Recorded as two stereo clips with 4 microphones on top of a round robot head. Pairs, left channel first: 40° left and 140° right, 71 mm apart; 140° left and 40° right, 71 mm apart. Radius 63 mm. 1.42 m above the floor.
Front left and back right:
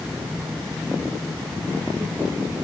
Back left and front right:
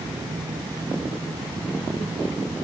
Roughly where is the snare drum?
I don't hear a snare drum.